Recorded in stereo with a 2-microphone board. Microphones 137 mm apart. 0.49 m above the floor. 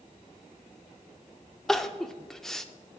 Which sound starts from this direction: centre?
Crying, at 1.7 s.